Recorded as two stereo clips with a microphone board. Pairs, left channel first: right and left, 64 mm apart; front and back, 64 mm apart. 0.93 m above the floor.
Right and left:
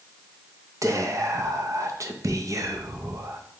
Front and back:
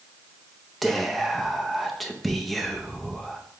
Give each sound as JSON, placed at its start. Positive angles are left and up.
{"t": 0.8, "sound": "whispering", "azimuth_deg": 90, "distance_m": 0.6}